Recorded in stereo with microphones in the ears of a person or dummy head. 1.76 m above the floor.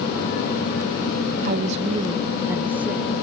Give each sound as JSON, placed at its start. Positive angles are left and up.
{"t": 1.4, "sound": "a woman speaking", "side_deg": -55}